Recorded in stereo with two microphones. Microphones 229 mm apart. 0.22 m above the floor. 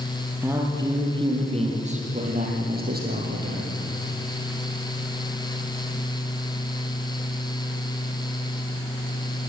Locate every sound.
0.4 s a man speaking: 10° right (ahead or behind), 5 m; by 3.7 s 45° right (ahead or behind), 6.5 m